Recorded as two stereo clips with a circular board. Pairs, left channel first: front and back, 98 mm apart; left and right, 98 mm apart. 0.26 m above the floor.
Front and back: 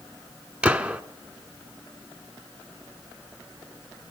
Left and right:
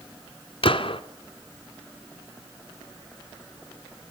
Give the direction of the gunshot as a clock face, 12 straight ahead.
9 o'clock.